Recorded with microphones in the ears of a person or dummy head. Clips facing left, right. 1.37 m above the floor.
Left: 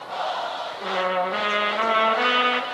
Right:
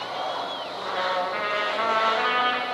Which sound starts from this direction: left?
A trumpet, at 0.8 s.